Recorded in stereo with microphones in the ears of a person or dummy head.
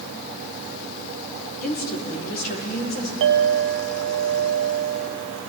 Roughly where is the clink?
Right.